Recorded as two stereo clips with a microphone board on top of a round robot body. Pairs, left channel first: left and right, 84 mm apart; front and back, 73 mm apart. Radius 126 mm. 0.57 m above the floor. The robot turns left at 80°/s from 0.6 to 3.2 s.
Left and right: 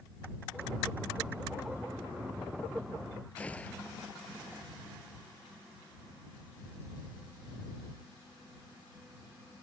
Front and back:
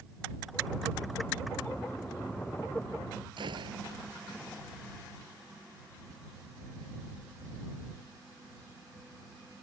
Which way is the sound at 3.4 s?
165° left.